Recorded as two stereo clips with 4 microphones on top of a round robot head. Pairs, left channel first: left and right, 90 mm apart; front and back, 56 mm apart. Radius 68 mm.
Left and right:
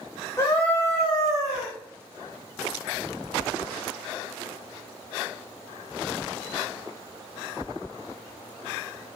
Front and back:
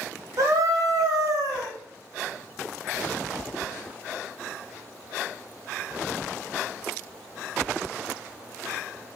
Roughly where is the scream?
Behind left.